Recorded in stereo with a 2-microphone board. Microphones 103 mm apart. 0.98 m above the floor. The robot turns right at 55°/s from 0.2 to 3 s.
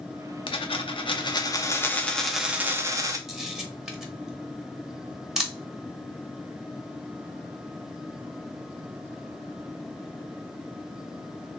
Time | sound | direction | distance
0.5 | a dropped coin | 80° left | 0.5 m
3.3 | a camera shutter | 5° right (ahead or behind) | 0.6 m